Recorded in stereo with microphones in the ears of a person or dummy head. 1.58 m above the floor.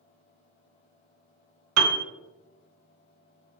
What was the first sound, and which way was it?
A piano, 85° right.